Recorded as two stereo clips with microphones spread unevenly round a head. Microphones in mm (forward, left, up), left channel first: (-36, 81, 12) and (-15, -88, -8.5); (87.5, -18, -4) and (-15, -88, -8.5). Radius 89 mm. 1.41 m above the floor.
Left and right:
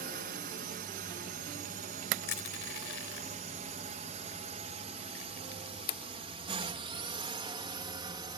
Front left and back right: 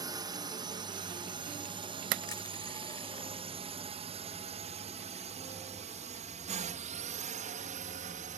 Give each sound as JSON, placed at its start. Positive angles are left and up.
{"t": 0.0, "sound": "a drone", "azimuth_deg": -95}
{"t": 2.3, "sound": "crushing", "azimuth_deg": 105}